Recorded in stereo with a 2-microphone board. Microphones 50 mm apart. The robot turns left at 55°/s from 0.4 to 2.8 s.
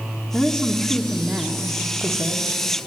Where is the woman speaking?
25° left, 1.8 m; by 2.5 s 95° right, 1.8 m.